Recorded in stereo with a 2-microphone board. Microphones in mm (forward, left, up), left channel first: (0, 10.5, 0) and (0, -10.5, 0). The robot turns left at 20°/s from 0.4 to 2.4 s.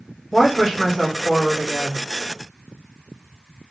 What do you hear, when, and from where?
0.3 s a woman speaking: 15° right (ahead or behind), 1.0 m; by 2.0 s 25° right (ahead or behind), 1.0 m